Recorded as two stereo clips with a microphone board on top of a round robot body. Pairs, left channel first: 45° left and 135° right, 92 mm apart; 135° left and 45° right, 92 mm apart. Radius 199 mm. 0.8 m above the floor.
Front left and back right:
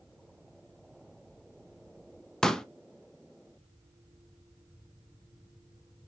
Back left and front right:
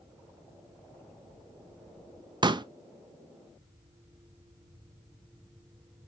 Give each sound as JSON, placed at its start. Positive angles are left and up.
{"t": 2.4, "sound": "a pop", "azimuth_deg": -40, "distance_m": 0.6}